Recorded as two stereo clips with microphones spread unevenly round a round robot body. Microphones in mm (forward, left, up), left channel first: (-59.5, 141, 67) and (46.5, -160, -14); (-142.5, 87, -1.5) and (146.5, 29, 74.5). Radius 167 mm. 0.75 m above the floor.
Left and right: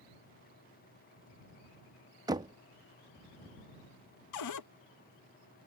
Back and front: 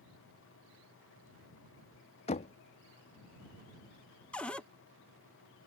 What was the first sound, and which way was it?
Knocking, 135° right.